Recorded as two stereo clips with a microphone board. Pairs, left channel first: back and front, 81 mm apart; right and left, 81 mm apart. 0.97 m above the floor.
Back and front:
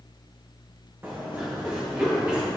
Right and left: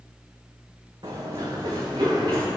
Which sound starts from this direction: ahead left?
Running footsteps, at 1.0 s.